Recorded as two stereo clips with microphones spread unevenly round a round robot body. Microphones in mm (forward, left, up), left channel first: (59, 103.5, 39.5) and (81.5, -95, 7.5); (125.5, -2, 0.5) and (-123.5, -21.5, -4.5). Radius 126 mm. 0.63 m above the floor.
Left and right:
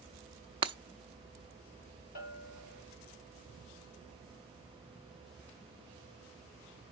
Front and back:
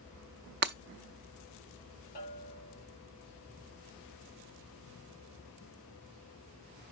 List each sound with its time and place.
0.6 s breaking glass: 140° right, 0.6 m
2.1 s a bell: 60° left, 2 m